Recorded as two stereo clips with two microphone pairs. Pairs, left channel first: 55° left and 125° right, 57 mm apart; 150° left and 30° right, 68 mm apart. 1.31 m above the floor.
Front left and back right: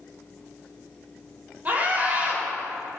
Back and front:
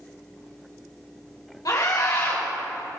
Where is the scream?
175° left, 5 m.